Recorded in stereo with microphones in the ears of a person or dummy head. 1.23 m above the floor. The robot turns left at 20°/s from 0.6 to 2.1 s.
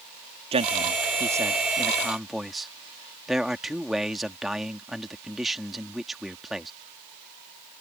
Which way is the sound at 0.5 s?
150° right.